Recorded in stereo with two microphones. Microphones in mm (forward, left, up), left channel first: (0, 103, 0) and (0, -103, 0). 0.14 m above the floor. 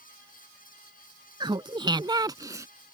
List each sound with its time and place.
1.4 s laughter: 20° right (ahead or behind); by 2.7 s 15° right (ahead or behind)